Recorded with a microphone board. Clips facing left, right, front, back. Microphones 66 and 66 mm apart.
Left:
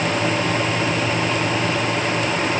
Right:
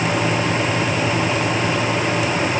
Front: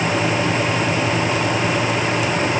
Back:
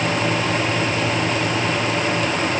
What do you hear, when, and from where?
Only background noise.